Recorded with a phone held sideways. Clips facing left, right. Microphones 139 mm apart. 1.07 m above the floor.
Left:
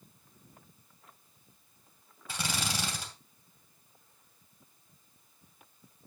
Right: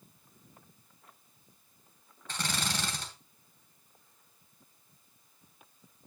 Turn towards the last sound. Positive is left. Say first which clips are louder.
# even
turn(degrees=10)  # may be behind; listen again after turning